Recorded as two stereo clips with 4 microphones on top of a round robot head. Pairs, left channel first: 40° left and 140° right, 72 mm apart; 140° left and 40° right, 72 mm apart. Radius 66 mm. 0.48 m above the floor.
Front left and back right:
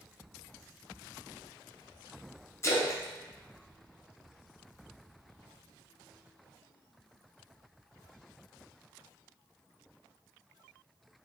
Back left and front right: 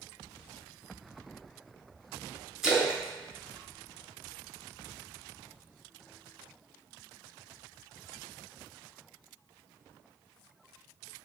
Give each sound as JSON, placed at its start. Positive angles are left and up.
{"t": 2.6, "sound": "a splash", "azimuth_deg": 40, "distance_m": 1.5}